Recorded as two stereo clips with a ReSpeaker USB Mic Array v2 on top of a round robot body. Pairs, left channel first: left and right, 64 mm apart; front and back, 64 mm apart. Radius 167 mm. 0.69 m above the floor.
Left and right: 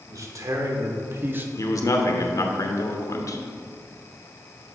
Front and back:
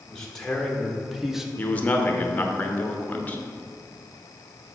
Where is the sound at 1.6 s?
65° left, 1.2 m.